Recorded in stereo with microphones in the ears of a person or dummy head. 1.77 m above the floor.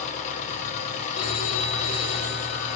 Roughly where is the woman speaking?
I don't hear a woman speaking.